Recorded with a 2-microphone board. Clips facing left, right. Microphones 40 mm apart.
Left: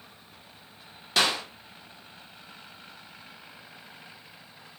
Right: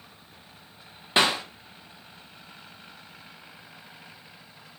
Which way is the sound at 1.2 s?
25° right (ahead or behind).